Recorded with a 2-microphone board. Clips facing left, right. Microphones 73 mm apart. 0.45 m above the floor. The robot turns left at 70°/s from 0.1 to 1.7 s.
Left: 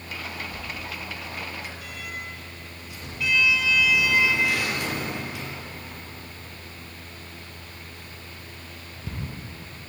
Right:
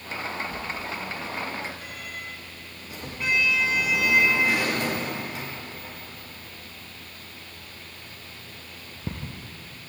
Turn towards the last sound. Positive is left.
turn(degrees=-40)  # may be behind; listen again after turning